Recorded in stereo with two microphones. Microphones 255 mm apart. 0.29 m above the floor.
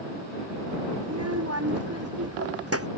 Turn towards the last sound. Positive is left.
turn(degrees=-65)  # may be behind; listen again after turning